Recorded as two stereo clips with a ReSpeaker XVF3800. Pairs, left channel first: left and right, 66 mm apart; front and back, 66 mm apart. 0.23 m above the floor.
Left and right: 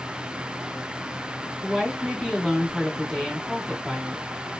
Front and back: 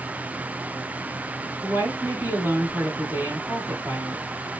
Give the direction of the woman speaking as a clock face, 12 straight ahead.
6 o'clock.